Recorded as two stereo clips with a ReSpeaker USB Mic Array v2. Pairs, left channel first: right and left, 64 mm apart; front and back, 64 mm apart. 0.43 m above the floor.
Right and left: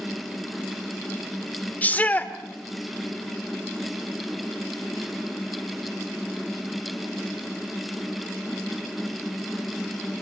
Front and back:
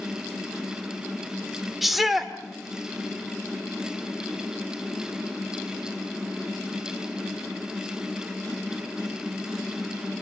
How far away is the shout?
About 1.4 m.